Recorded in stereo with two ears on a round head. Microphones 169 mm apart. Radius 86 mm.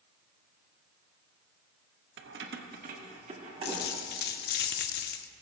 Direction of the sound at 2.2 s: 70° right (ahead or behind).